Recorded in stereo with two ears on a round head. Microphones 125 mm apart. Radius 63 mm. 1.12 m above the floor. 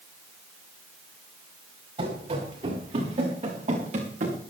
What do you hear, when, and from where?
2.0 s running footsteps: 40° right (ahead or behind), 6.5 m; by 4.4 s 55° right (ahead or behind), 5.5 m